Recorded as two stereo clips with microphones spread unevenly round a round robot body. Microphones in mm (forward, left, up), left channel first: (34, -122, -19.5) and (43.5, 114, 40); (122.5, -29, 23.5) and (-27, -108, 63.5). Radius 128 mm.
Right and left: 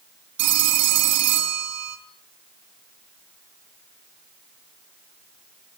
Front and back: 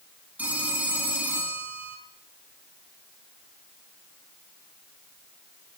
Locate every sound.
0.4 s a phone ringing: 125° left, 3.5 m